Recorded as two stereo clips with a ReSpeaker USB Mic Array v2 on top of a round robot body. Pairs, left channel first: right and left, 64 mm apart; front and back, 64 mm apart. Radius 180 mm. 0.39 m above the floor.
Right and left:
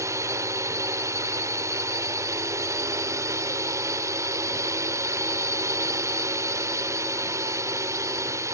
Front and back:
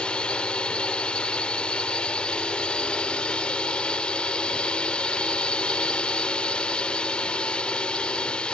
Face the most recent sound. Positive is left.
turn(degrees=70)